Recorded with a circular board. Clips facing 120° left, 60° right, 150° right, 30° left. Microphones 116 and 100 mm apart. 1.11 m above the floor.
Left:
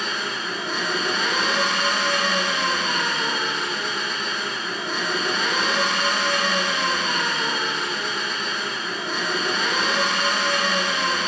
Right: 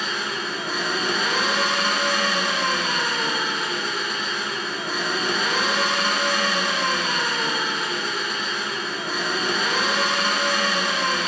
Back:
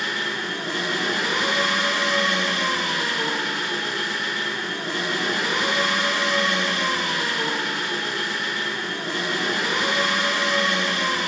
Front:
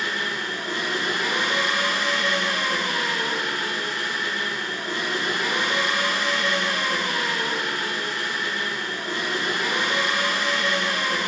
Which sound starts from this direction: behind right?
An engine running, at 0.0 s.